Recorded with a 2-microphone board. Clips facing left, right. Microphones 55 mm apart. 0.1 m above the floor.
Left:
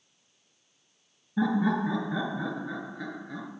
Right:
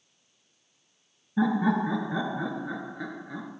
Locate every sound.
1.4 s laughter: 5° right (ahead or behind), 1.4 m